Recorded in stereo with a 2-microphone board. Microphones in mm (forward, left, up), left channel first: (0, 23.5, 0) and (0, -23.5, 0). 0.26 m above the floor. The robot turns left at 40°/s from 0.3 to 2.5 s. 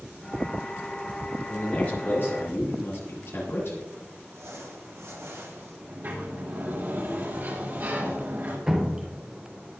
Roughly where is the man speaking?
Behind.